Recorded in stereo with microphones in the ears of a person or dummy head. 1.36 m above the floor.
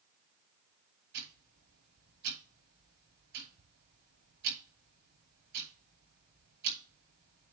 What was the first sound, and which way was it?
Ticking, 70° right (ahead or behind).